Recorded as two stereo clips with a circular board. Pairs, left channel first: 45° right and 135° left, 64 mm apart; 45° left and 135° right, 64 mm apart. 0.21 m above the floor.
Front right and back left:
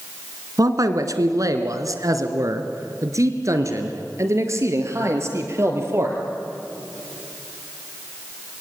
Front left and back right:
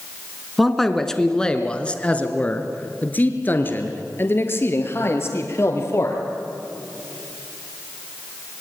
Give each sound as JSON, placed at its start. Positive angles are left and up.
{"t": 0.6, "sound": "a man speaking", "azimuth_deg": 135, "distance_m": 2.0}